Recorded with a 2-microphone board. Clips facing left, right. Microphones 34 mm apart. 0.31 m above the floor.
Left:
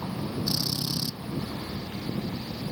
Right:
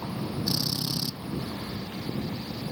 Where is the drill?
10° right (ahead or behind).